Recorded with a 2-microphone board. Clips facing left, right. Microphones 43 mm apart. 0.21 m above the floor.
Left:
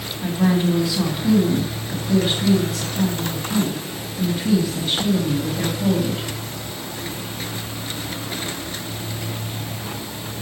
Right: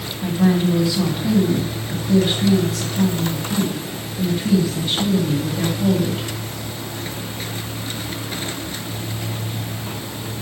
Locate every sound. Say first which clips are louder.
0.2 s a woman speaking: right 1 dB; centre (ahead or behind), 1.6 m